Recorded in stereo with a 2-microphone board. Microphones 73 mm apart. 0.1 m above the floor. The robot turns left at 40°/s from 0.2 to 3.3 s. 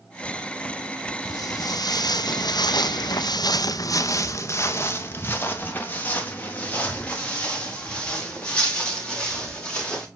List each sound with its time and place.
1.2 s footsteps: 60° left (ahead or behind), 1.5 m; by 10.1 s 10° left (ahead or behind), 5 m